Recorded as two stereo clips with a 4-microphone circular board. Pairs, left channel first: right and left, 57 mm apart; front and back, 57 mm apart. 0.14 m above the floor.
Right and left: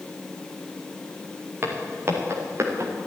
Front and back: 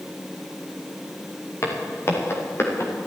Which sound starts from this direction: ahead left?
Footsteps, at 1.6 s.